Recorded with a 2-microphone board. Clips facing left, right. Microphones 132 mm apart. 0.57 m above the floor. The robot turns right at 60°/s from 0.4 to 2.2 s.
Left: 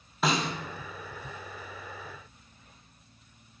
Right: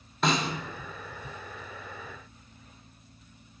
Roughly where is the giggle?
I don't hear a giggle.